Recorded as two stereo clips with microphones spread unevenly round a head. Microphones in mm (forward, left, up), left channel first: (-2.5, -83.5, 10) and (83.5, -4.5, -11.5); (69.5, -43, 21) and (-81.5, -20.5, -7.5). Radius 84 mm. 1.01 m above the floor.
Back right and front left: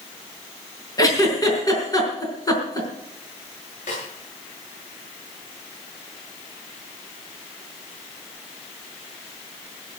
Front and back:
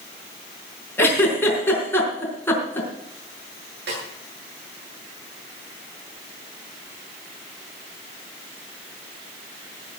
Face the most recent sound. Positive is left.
turn(degrees=175)